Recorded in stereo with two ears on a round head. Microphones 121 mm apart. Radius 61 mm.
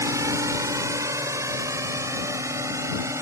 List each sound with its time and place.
0.0 s a drone: 20° right (ahead or behind)